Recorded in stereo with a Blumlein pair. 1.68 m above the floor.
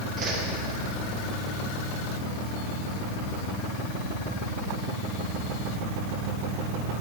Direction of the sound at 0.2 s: 25° right.